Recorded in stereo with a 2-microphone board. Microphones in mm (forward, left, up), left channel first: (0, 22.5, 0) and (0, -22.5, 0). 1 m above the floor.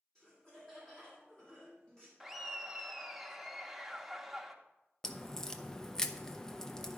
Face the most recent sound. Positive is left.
turn(degrees=10)  # may be behind; listen again after turning